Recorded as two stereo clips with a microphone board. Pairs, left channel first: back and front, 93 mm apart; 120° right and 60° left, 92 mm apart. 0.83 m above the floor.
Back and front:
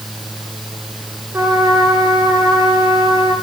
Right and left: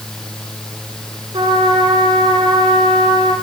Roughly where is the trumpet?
Ahead left.